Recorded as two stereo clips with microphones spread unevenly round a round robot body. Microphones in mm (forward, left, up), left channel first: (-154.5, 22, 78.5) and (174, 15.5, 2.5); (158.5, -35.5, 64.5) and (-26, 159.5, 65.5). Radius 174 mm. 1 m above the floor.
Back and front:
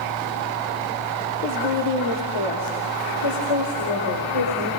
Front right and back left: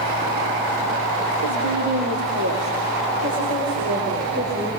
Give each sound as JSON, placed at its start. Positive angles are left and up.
{"t": 1.4, "sound": "a woman speaking", "azimuth_deg": 130, "distance_m": 3.0}